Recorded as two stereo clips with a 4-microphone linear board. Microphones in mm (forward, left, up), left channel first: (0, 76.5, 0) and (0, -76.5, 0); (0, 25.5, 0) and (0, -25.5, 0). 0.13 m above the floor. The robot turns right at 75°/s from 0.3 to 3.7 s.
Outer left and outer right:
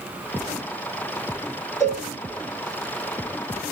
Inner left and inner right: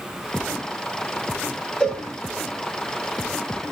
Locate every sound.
1.8 s a cowbell: 20° left (ahead or behind), 0.9 m; by 2.0 s centre (ahead or behind), 0.9 m